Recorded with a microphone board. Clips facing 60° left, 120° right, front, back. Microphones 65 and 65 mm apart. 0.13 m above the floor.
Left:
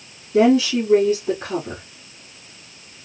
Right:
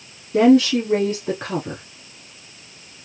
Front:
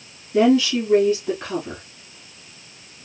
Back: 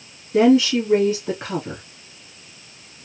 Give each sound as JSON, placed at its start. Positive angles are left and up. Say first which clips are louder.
{"t": 0.3, "sound": "a woman speaking", "louder": "right 2 dB, back 2 dB", "azimuth_deg": -120, "distance_m": 1.9}